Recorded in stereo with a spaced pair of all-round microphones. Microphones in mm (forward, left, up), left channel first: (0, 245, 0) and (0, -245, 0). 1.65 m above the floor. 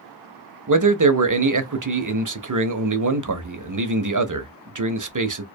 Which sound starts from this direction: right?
A man speaking, at 0.7 s.